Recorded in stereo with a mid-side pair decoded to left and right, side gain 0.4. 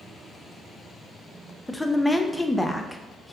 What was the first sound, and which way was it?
A woman speaking, 15° left.